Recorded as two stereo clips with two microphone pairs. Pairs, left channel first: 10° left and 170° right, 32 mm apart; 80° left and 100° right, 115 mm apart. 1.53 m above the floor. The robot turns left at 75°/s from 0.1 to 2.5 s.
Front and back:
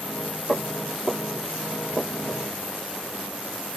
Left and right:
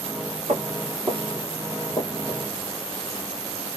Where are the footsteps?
105° right, 2 m; by 2.4 s 50° left, 1.8 m.